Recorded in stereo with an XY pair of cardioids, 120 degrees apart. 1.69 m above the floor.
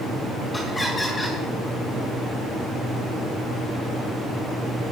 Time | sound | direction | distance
0.5 | laughter | 20° left | 3.5 m